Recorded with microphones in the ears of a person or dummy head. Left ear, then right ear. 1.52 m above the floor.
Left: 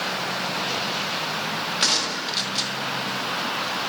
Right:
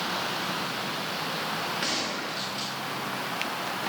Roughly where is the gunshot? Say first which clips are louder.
Left 7 dB; left.